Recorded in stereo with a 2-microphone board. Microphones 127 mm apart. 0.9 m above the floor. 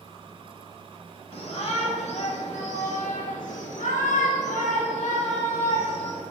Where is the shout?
50° left (ahead or behind), 2.5 m; by 6.2 s 55° left (ahead or behind), 3 m.